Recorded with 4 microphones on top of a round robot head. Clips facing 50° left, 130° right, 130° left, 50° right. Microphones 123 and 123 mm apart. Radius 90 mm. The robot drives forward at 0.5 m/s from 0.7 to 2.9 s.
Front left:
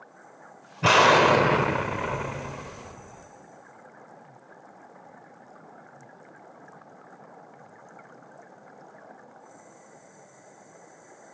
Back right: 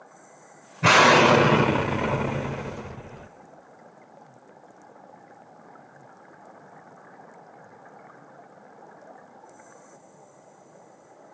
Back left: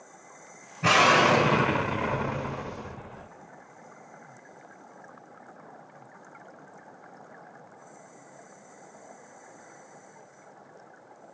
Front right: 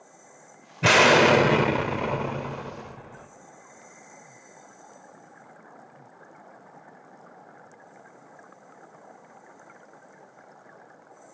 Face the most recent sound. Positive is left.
turn(degrees=-140)